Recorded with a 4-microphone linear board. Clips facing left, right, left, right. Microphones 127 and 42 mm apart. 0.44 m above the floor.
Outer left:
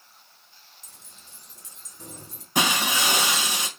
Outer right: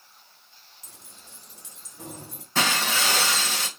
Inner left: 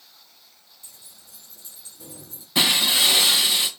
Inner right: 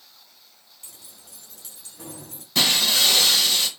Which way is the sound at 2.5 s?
15° left (ahead or behind).